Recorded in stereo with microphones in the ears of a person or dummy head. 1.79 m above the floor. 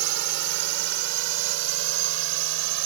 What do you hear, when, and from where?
0.0 s a drone: 60° right (ahead or behind); by 2.9 s 70° right (ahead or behind)